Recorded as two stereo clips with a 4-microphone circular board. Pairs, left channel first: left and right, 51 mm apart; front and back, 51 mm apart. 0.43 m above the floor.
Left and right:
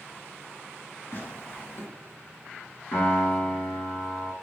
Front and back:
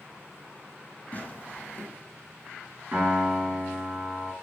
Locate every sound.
1.1 s tearing paper: 55° left, 1.1 m
2.9 s a piano: 130° left, 2 m